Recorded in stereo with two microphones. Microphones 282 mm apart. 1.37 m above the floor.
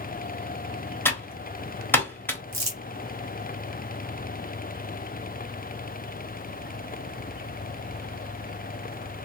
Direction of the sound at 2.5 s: 70° right (ahead or behind).